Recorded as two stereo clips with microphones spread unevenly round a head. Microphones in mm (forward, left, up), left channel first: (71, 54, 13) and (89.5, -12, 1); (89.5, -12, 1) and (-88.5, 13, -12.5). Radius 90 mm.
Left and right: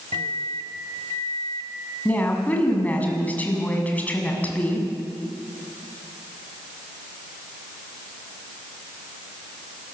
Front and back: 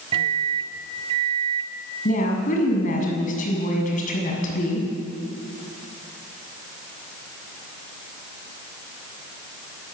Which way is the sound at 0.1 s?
125° right.